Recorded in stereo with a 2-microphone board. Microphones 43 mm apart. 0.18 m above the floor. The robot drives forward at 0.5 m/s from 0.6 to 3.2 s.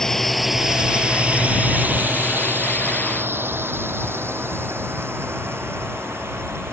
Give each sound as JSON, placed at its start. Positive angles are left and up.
{"t": 0.0, "sound": "a drone", "side_deg": 10}